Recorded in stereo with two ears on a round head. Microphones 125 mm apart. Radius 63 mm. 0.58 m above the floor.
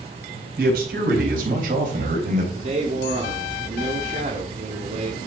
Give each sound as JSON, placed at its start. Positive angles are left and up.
{"t": 0.6, "sound": "a man speaking", "side_deg": -70, "distance_m": 4.0}
{"t": 2.5, "sound": "a man speaking", "side_deg": -50, "distance_m": 1.5}